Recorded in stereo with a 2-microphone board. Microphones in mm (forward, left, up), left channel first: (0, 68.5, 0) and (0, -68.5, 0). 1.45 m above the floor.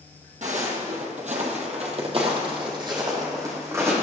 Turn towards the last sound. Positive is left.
turn(degrees=-20)  # may be behind; listen again after turning